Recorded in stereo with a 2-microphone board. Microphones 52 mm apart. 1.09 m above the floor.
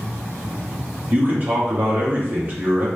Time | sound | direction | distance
1.1 | a man speaking | 35° right (ahead or behind) | 1.5 m